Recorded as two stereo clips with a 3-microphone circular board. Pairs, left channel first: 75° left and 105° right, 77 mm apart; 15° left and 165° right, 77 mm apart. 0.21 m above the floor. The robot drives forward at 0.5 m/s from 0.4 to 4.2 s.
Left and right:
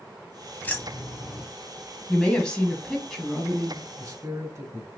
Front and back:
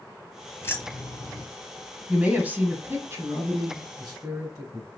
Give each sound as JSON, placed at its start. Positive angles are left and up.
{"t": 0.6, "sound": "keys jangling", "azimuth_deg": 30, "distance_m": 1.1}
{"t": 2.1, "sound": "a woman speaking", "azimuth_deg": 135, "distance_m": 1.2}
{"t": 4.0, "sound": "a man speaking", "azimuth_deg": -145, "distance_m": 1.7}